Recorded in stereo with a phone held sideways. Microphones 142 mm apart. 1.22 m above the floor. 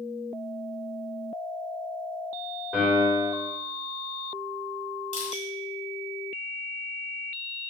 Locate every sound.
2.7 s a piano: 5° right (ahead or behind), 1.4 m
5.1 s crushing: 55° left (ahead or behind), 1.3 m